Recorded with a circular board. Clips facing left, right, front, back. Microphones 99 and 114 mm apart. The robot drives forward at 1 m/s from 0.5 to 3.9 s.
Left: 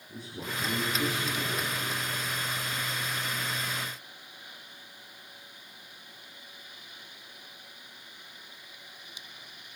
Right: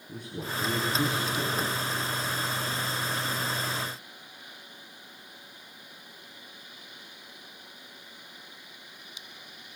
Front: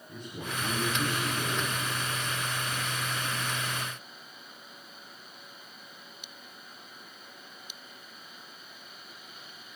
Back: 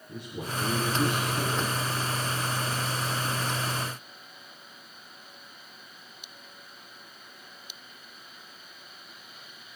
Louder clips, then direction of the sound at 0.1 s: Right 3 dB, back 3 dB; 100° right.